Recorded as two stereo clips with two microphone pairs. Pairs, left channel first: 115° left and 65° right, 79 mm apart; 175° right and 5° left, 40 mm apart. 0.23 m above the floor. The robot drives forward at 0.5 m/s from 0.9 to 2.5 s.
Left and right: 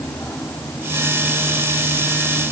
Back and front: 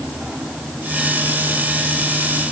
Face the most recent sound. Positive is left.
No sound to turn to.